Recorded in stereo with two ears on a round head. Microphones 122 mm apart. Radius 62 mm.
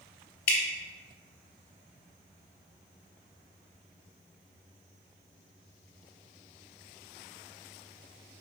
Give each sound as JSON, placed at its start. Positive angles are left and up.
{"t": 0.5, "sound": "dripping", "side_deg": 70, "distance_m": 0.9}